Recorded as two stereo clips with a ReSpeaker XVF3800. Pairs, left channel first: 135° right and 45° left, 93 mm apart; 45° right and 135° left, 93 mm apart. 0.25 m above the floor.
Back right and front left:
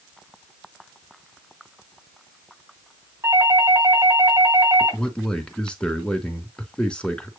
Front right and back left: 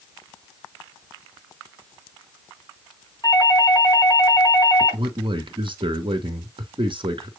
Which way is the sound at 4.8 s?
145° left.